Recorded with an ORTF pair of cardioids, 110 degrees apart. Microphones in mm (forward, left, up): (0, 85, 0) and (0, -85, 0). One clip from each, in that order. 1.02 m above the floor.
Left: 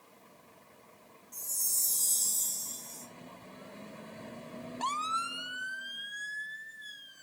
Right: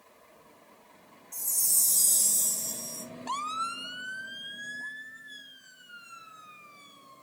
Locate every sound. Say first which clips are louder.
1.3 s a chime: right 5 dB; 35° right, 0.5 m